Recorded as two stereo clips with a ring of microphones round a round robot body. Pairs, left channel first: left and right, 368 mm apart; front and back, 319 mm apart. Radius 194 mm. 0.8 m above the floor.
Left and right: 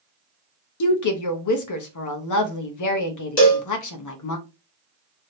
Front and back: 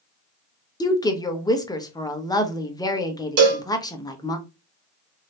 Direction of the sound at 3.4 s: 160° left.